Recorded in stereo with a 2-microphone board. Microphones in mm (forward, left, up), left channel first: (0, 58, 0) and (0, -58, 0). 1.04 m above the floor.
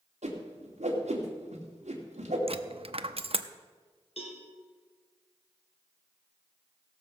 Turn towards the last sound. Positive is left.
turn(degrees=65)  # may be behind; listen again after turning